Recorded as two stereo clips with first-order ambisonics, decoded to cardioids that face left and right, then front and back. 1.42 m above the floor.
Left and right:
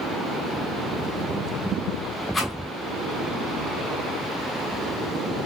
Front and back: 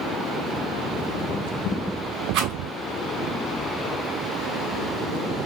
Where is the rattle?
165° left, 2 m.